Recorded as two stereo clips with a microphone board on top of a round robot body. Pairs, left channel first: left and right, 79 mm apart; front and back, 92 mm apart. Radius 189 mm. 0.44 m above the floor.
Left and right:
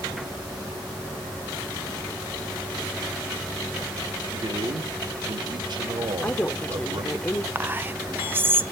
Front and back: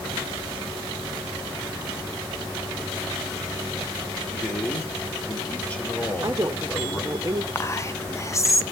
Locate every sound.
4.3 s a man speaking: 75° right, 2.5 m
6.2 s a woman speaking: 145° left, 1.5 m
7.5 s whispering: 40° right, 1.0 m